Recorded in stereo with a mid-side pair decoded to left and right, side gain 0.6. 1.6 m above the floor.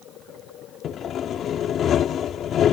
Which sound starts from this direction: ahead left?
Sawing, at 0.8 s.